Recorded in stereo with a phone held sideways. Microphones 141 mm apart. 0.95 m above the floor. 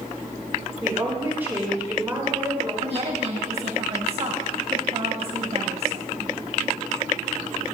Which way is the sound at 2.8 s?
45° right (ahead or behind).